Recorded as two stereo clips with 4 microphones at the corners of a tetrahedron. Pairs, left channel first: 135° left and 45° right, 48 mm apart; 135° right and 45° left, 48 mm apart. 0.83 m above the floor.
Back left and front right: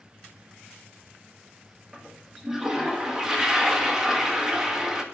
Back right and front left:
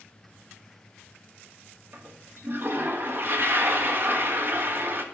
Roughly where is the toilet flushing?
Ahead left.